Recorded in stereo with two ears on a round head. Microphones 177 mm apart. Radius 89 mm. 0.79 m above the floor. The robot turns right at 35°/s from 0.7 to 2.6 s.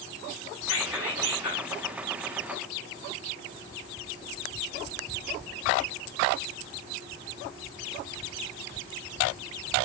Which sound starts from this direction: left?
Whispering, at 0.6 s.